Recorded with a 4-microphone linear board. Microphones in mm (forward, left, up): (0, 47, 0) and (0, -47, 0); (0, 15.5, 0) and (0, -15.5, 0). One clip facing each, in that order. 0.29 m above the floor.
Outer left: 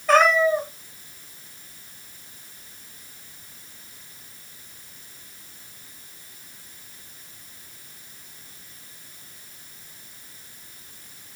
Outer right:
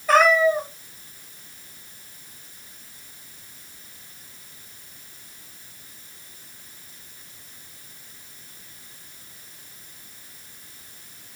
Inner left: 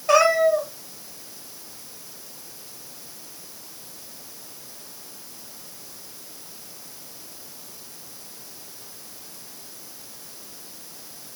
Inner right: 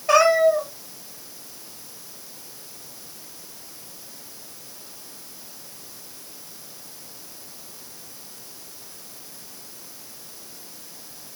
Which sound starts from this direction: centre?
A cat meowing, at 0.1 s.